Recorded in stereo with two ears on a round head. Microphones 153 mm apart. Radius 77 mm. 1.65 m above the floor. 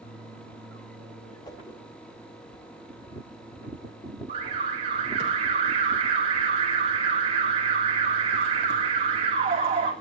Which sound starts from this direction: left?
A whoosh, at 1.4 s.